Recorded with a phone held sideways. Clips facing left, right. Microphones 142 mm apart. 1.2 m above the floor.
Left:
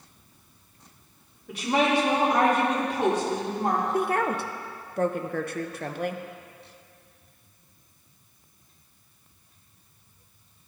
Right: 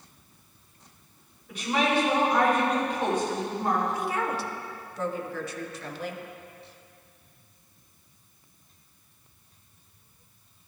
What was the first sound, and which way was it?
A woman speaking, 75° left (ahead or behind).